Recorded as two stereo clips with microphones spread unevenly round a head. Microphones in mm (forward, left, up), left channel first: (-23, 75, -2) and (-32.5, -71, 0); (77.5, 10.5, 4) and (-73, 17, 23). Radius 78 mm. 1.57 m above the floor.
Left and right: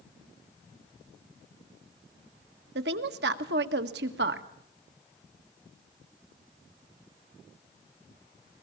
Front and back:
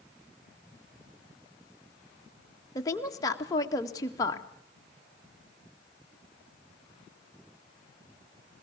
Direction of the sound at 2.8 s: 75° right.